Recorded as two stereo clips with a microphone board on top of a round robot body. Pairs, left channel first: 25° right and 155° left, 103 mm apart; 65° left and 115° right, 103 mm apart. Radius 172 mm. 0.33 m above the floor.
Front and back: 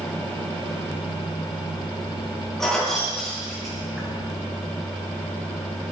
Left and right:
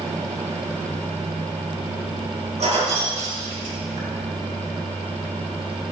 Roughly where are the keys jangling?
Right.